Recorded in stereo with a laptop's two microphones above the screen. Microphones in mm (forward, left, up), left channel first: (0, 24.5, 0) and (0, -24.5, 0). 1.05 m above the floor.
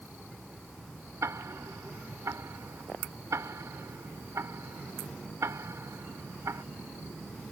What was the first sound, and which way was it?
Ticking, 80° right.